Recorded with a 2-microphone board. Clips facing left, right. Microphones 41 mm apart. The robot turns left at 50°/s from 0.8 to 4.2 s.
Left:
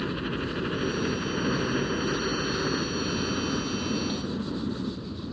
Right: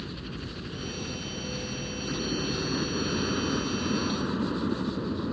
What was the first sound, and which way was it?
A helicopter, 130° left.